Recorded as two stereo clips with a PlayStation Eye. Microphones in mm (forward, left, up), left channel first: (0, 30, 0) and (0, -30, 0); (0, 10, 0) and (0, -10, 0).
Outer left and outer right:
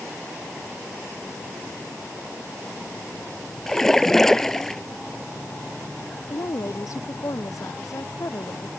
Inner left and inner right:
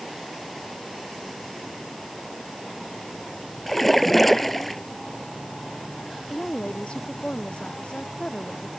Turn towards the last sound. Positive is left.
turn(degrees=60)  # may be behind; listen again after turning